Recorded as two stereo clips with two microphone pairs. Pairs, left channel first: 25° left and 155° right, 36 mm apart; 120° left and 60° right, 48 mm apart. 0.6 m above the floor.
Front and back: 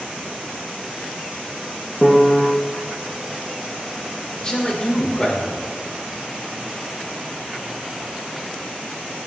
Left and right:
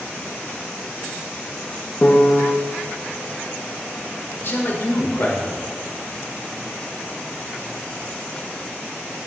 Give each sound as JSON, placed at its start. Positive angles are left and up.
{"t": 2.0, "sound": "a piano", "azimuth_deg": 145, "distance_m": 0.5}
{"t": 4.3, "sound": "a man speaking", "azimuth_deg": 85, "distance_m": 1.4}